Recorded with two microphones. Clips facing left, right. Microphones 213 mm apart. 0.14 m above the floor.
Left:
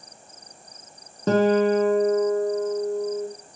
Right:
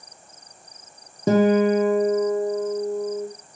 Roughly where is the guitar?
Centre.